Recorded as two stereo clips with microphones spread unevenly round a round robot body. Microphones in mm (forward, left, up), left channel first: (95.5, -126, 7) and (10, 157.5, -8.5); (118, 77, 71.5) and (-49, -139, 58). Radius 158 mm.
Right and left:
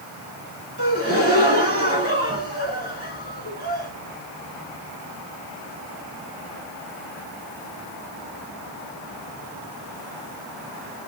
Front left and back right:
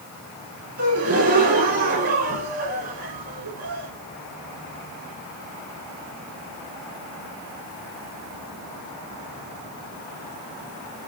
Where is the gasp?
170° left, 1.3 m.